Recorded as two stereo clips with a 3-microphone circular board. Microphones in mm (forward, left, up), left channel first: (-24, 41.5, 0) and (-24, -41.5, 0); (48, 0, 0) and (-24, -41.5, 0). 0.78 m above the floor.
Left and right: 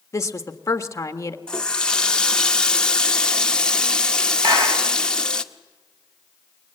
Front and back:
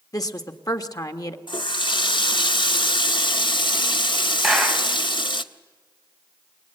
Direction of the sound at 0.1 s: 50° left.